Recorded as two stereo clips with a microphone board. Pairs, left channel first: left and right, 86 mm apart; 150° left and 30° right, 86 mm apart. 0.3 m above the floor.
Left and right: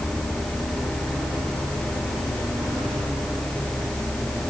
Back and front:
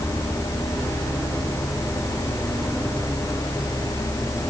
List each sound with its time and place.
Only background noise.